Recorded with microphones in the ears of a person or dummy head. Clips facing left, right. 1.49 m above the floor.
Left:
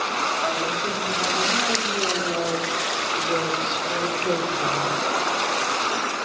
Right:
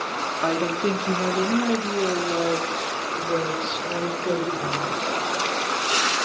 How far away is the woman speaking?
About 4 m.